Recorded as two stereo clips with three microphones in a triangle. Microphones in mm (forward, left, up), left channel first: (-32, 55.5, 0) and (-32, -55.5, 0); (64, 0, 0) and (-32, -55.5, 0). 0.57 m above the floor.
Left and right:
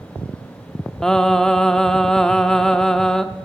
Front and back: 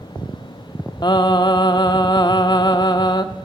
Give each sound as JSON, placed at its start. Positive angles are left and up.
{"t": 1.0, "sound": "singing", "azimuth_deg": 10, "distance_m": 0.7}